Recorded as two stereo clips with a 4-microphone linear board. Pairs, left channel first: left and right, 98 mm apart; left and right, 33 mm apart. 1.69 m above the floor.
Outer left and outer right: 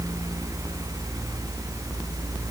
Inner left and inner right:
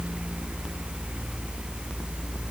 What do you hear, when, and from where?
Only background noise.